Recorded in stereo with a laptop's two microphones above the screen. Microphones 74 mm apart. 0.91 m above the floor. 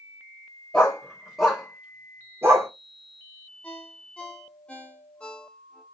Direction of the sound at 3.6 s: 15° left (ahead or behind).